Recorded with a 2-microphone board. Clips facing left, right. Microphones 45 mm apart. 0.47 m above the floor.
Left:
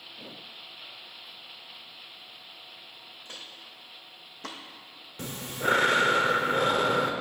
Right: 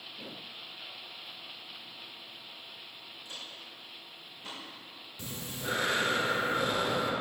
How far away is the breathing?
About 0.6 m.